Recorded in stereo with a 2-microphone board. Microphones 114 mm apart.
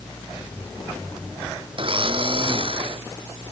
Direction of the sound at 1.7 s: 55° right (ahead or behind).